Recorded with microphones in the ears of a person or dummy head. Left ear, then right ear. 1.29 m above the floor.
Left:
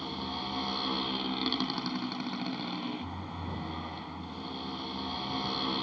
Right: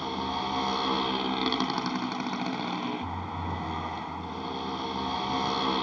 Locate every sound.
0.0 s a motorcycle: 30° right (ahead or behind)